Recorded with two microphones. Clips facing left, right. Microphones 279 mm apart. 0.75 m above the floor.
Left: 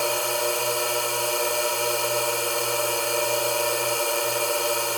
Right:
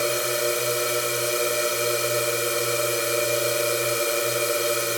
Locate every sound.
0.0 s a drone: 20° right (ahead or behind)